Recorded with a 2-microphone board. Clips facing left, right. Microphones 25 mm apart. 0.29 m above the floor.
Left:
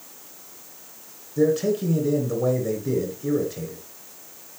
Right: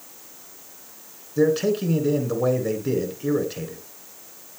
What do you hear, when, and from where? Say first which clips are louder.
1.4 s a man speaking: right 1 dB; 50° right (ahead or behind), 3 m